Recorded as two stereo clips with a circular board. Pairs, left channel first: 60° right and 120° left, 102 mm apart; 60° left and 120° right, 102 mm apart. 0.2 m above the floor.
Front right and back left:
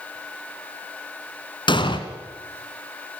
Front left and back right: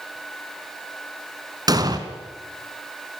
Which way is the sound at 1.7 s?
80° right.